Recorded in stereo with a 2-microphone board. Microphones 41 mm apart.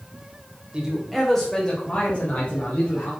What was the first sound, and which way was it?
A man speaking, 25° right (ahead or behind).